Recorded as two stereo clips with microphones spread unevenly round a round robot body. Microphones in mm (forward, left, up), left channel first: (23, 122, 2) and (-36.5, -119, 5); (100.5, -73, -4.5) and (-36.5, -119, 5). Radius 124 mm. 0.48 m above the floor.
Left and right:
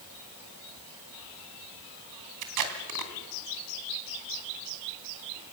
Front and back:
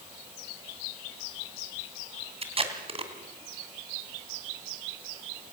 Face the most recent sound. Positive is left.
turn(degrees=-115)